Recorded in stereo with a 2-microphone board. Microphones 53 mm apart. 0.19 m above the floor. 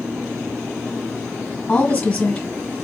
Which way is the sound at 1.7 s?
15° left (ahead or behind).